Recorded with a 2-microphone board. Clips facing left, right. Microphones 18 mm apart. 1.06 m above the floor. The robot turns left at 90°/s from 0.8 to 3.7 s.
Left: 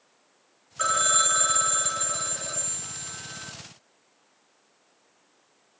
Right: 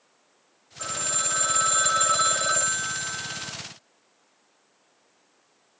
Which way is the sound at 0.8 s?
70° left.